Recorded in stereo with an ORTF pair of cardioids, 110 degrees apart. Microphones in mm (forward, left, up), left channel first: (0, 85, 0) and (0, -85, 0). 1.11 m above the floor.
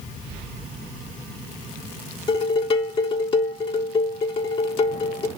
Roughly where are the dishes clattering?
Ahead left.